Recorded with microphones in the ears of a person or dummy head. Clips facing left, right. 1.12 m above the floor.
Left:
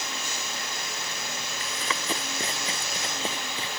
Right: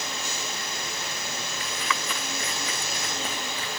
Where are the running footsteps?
35° left (ahead or behind); by 3.8 s 25° left (ahead or behind).